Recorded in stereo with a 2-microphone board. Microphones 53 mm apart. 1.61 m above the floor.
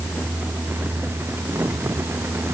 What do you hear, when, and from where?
Only background noise.